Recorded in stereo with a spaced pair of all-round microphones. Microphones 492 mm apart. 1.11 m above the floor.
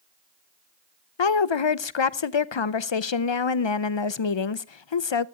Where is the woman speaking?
65° left (ahead or behind), 0.6 m.